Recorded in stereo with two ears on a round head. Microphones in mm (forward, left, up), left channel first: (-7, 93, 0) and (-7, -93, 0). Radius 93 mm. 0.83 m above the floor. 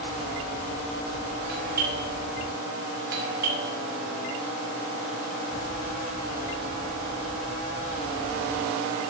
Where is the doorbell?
45° right (ahead or behind), 5 m.